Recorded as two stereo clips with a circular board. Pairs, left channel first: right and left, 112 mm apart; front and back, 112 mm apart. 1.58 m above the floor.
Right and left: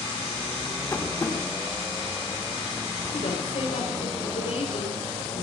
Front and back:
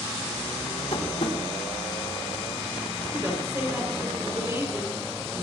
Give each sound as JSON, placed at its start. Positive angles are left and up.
{"t": 0.9, "sound": "tapping", "azimuth_deg": -25, "distance_m": 2.5}
{"t": 3.1, "sound": "a woman speaking", "azimuth_deg": -110, "distance_m": 5.5}